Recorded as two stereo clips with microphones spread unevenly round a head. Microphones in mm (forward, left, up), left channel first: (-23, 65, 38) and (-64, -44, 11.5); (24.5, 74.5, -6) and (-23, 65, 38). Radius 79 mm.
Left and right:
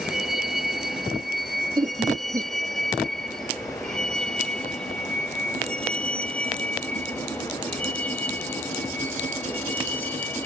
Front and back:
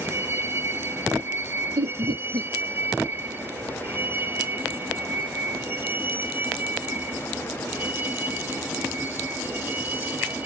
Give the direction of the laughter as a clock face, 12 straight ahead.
5 o'clock.